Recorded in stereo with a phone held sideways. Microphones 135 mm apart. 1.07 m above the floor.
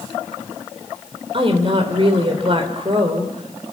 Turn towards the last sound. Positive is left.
turn(degrees=-45)  # may be behind; listen again after turning